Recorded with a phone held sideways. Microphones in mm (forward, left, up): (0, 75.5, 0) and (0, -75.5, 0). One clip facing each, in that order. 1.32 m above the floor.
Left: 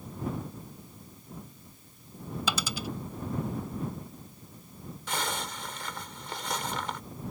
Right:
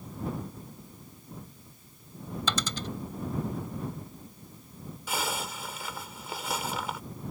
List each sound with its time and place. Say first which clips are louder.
2.5 s a dropped coin: even; 10° left (ahead or behind)
5.1 s a zipper: right 1 dB; 5° right (ahead or behind)